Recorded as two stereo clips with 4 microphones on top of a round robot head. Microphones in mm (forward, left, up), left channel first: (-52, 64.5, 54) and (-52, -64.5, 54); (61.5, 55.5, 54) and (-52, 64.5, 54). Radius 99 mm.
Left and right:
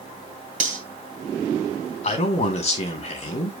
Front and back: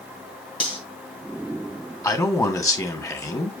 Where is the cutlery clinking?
60° right, 2.5 m.